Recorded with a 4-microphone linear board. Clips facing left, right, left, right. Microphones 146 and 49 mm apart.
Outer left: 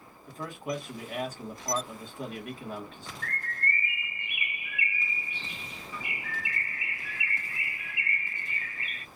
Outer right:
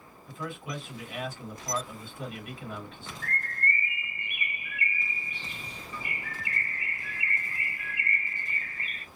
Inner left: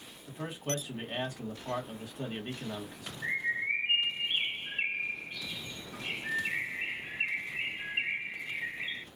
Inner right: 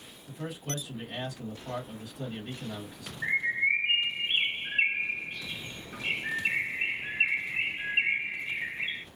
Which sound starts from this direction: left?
A man speaking, at 0.3 s.